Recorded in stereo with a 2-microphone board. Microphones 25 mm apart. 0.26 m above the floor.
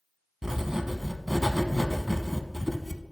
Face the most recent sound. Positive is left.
turn(degrees=-20)  # may be behind; listen again after turning